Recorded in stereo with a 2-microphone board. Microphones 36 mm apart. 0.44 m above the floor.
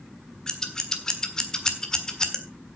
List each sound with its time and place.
0.5 s scissors: 20° left (ahead or behind), 1.6 m